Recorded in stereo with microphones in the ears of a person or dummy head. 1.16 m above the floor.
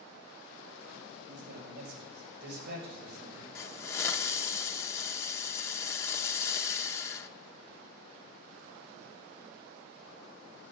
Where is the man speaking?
65° right (ahead or behind), 5 m; by 3.5 s 45° right (ahead or behind), 3.5 m.